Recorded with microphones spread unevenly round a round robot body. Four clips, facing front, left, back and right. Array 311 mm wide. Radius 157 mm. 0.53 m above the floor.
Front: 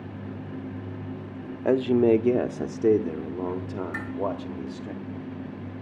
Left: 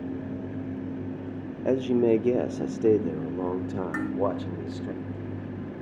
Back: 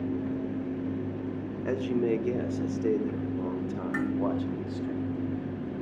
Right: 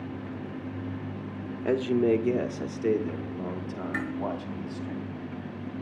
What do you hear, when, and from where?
1.6 s a man speaking: 10° left, 0.9 m; by 4.9 s 50° left, 2 m
3.9 s dishes clattering: 120° left, 4 m